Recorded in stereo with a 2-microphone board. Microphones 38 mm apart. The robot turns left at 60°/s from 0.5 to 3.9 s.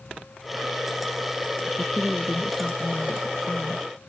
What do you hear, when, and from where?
1.7 s a woman speaking: 140° right; by 3.9 s 90° left